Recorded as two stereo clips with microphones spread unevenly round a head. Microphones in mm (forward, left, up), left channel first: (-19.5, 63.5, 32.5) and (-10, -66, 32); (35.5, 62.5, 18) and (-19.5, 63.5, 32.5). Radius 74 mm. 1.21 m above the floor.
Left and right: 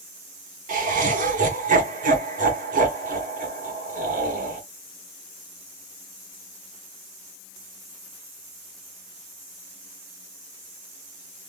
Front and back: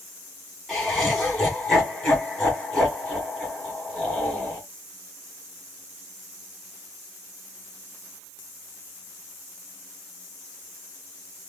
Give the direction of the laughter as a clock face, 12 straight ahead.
3 o'clock.